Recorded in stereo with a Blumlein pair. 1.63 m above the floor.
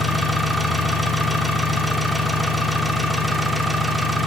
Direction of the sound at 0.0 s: 5° right.